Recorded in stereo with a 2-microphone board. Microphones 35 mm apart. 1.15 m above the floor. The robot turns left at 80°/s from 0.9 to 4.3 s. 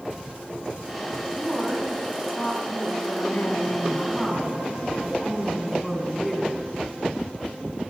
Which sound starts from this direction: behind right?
A woman speaking, at 1.4 s.